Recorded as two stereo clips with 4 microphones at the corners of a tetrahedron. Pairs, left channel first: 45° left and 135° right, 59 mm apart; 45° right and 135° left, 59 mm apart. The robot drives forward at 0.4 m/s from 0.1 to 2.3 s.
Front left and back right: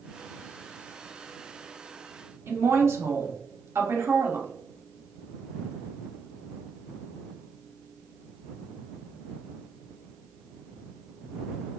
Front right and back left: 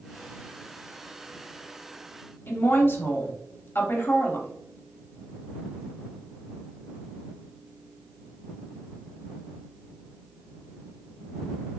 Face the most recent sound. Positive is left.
turn(degrees=-95)